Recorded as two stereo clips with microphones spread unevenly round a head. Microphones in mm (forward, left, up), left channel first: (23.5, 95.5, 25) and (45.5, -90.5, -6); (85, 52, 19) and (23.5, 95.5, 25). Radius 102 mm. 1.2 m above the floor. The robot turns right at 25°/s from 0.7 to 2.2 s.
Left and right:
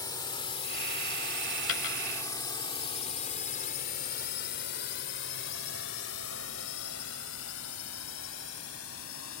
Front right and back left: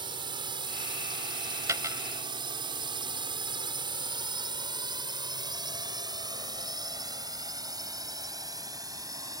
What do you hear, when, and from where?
0.0 s a drone: 170° left; by 9.4 s 110° left
1.7 s a dropped coin: 100° left; by 2.0 s 110° left